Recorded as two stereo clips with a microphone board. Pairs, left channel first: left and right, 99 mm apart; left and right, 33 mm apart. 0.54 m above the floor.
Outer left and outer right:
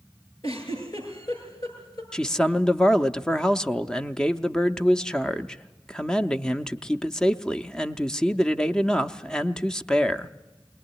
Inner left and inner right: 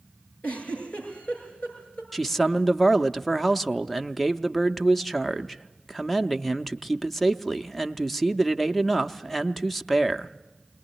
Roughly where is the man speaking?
Centre.